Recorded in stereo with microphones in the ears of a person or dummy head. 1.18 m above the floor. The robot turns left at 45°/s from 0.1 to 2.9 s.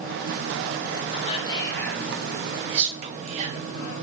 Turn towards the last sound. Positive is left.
turn(degrees=-35)  # may be behind; listen again after turning